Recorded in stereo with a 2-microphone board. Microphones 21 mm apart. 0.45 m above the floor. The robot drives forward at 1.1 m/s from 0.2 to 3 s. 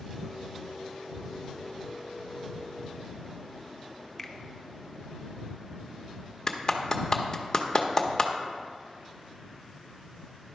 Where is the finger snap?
15° left (ahead or behind), 0.5 m.